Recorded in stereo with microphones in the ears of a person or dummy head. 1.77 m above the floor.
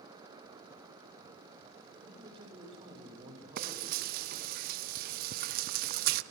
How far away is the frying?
About 0.6 m.